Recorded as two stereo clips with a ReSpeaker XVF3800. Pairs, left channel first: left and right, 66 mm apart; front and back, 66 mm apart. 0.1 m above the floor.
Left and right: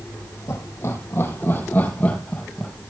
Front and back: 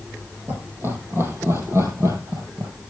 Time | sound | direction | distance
0.5 | laughter | 130° left | 4.5 m